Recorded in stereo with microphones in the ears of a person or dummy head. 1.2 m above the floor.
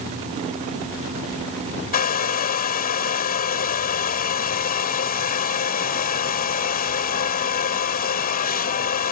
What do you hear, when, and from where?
1.9 s a hair dryer: 50° left (ahead or behind)